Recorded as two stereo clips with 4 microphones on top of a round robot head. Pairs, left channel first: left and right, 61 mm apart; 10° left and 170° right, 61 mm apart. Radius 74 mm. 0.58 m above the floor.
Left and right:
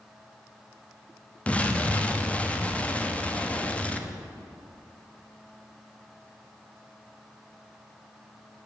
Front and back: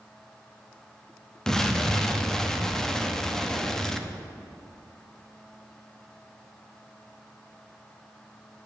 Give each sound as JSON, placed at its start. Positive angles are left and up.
{"t": 1.5, "sound": "an explosion", "azimuth_deg": 75, "distance_m": 1.0}